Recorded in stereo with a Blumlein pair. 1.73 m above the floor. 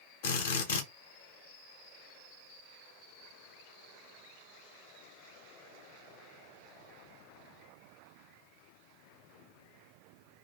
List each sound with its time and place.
0.2 s a drill: 55° left, 1.3 m